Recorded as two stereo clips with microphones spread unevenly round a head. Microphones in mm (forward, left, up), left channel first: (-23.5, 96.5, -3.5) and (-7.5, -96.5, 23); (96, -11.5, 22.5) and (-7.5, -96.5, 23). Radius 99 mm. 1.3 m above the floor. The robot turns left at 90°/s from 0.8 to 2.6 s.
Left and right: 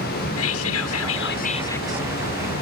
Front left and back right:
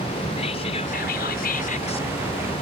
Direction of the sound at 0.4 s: 100° left.